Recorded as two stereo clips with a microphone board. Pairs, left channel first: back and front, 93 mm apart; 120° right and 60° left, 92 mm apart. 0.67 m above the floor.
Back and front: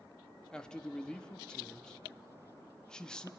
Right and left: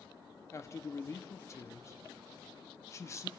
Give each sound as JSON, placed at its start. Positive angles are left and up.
{"t": 0.5, "sound": "a man speaking", "azimuth_deg": -105, "distance_m": 1.0}